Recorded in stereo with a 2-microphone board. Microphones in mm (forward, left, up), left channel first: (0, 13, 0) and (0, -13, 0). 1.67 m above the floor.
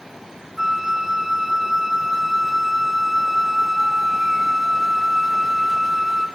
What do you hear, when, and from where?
0.6 s a flute: 10° right (ahead or behind), 1.0 m